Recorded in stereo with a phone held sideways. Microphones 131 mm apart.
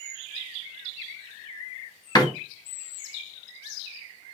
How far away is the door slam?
About 1.1 m.